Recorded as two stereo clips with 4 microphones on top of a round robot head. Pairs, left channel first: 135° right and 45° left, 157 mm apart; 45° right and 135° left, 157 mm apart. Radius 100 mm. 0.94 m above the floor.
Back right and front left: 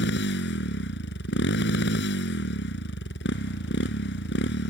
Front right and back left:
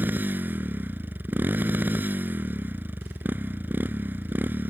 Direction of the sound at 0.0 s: 145° right.